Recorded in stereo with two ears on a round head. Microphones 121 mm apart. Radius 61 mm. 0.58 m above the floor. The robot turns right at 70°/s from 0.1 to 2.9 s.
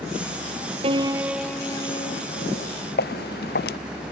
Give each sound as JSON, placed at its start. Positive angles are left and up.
{"t": 0.8, "sound": "a piano", "azimuth_deg": -40}
{"t": 3.0, "sound": "footsteps", "side_deg": 80}